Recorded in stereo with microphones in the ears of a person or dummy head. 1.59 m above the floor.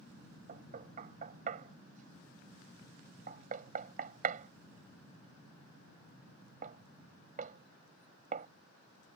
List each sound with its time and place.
0.5 s knocking: 40° right (ahead or behind)